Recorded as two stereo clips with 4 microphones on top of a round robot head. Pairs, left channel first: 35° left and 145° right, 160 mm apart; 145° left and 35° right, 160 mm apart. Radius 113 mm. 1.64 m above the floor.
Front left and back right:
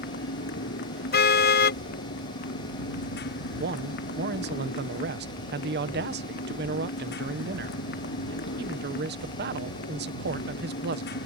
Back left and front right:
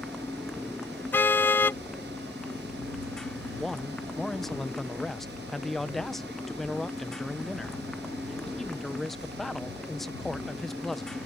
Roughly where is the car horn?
Ahead left.